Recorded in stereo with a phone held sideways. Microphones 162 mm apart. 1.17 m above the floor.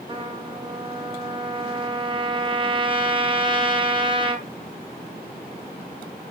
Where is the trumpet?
30° right (ahead or behind), 0.6 m.